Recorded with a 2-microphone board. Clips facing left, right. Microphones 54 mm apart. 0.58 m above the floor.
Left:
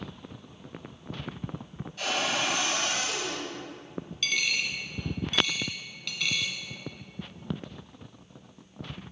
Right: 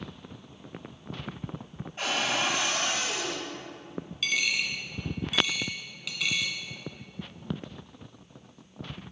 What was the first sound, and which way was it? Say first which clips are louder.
A cupboard door: right 1 dB; 30° right (ahead or behind).